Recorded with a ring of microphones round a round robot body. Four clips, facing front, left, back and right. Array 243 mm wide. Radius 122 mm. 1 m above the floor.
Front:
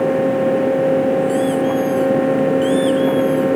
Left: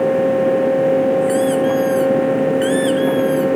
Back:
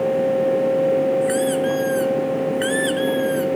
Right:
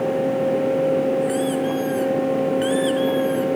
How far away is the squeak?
About 4 m.